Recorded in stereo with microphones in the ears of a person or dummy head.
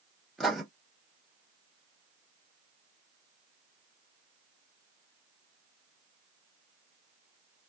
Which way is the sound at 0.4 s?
Centre (ahead or behind).